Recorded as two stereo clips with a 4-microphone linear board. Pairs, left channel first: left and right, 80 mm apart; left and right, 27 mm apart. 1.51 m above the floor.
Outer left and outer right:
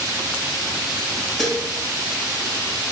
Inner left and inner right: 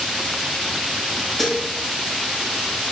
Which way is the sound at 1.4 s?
5° left (ahead or behind).